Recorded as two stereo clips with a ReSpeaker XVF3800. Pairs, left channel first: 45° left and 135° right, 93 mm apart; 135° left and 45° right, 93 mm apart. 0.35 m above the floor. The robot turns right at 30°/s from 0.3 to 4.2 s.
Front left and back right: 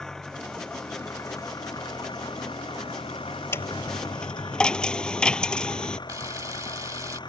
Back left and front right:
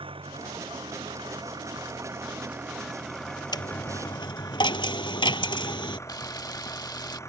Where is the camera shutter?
175° left.